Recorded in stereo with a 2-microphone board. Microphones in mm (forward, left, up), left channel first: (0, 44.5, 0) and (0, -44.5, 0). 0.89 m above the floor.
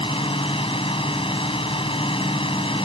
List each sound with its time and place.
0.0 s a drone: 80° left